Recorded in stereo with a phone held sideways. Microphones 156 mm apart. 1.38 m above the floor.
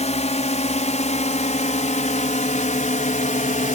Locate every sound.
0.0 s a drone: 45° left (ahead or behind); by 3.8 s 55° left (ahead or behind)